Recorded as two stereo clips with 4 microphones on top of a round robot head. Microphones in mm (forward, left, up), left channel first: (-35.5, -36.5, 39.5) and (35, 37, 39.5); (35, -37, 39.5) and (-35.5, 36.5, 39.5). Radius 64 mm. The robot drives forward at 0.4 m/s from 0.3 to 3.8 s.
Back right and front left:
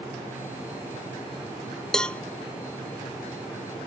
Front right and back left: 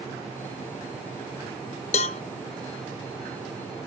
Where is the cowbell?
50° right; by 2.2 s 60° right.